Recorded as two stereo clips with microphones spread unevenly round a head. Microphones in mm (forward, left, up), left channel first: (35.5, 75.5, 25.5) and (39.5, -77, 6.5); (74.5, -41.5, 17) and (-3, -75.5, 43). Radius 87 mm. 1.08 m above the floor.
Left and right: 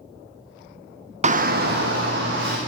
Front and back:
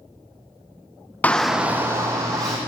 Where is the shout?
45° right, 0.5 m; by 2.6 s 105° right, 1.3 m.